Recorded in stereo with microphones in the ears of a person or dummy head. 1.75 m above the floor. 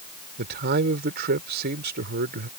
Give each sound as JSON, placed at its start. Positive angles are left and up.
{"t": 0.4, "sound": "a man speaking", "side_deg": -55}